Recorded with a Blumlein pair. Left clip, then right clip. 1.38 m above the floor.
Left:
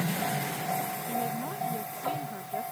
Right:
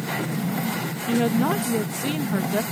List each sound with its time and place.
1.1 s a woman speaking: 55° right